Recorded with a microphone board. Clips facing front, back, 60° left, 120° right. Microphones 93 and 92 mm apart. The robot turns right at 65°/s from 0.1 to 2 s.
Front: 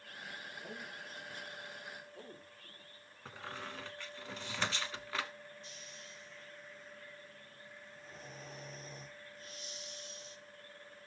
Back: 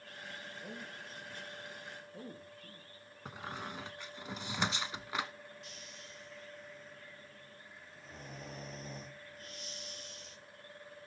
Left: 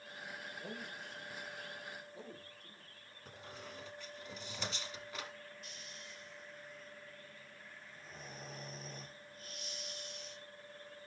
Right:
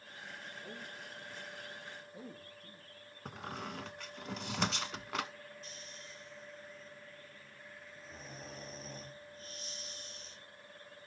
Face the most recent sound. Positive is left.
turn(degrees=-175)